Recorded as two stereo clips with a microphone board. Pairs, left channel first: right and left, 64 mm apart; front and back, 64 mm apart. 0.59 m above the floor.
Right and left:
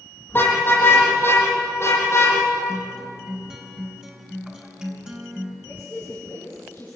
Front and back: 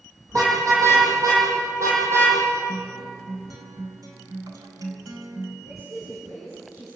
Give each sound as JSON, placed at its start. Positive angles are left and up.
{"t": 0.3, "sound": "a car horn", "azimuth_deg": -150, "distance_m": 9.0}
{"t": 2.7, "sound": "a guitar", "azimuth_deg": 165, "distance_m": 3.5}
{"t": 5.7, "sound": "a woman speaking", "azimuth_deg": -155, "distance_m": 8.5}